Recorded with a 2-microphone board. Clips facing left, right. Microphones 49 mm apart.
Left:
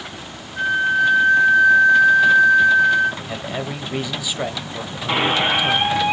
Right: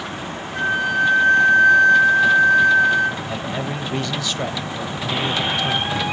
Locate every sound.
0.5 s a flute: 85° right, 5.5 m
3.2 s a man speaking: 10° left (ahead or behind), 1.0 m
5.1 s a squeak: 40° left (ahead or behind), 2 m